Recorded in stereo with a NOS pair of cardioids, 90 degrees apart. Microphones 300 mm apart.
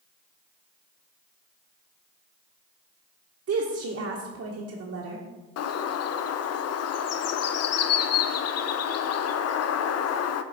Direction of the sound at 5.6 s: 55° left.